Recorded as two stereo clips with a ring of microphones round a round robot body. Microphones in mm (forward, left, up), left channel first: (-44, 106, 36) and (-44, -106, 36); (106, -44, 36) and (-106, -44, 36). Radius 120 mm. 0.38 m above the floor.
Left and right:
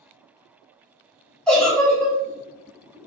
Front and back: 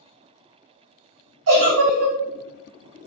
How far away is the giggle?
About 1.8 m.